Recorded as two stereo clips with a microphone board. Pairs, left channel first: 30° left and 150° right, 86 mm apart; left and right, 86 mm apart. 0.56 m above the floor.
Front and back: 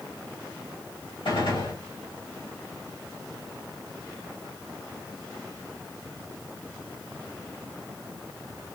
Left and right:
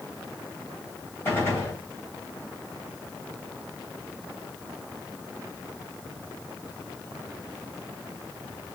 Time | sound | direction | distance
1.2 | a gunshot | 30° left | 3 m